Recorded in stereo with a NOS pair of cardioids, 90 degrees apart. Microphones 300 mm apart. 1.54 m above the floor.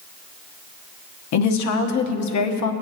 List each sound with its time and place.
1.3 s a woman speaking: 65° left, 1.2 m